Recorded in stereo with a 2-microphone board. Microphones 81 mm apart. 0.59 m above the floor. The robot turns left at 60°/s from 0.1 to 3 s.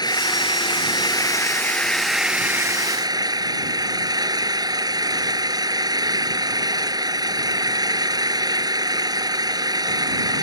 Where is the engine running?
120° left; by 10.4 s 55° right.